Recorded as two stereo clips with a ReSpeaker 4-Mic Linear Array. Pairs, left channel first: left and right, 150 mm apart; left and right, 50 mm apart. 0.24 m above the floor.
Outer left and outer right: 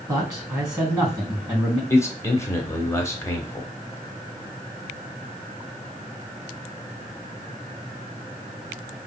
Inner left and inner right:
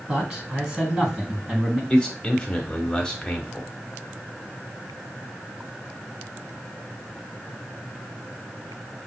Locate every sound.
0.1 s a man speaking: 25° right (ahead or behind), 2.5 m
1.9 s a man speaking: 20° left (ahead or behind), 0.9 m